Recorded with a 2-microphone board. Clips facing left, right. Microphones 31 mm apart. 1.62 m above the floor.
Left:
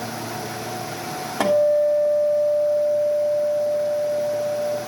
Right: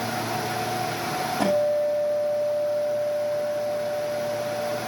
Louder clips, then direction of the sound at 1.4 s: Left 6 dB; 80° left.